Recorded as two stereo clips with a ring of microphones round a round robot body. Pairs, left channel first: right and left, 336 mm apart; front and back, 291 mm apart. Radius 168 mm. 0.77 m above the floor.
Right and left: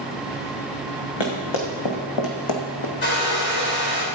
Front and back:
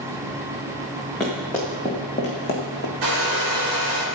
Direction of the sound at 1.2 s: 90° right.